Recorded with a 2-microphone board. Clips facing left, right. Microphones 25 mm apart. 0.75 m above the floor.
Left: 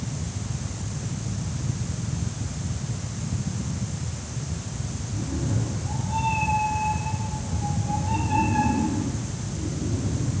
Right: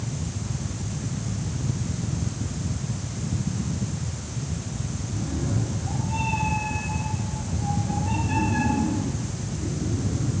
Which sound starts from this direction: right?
A cat meowing, at 5.1 s.